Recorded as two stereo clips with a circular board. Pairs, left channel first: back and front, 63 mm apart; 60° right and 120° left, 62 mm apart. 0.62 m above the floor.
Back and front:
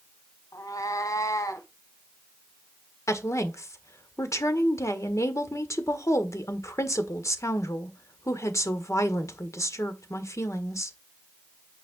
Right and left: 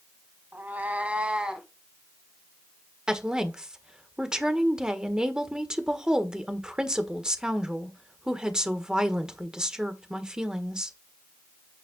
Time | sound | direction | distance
0.5 | a cat meowing | 175° left | 1.5 m
3.1 | a woman speaking | 165° right | 1.6 m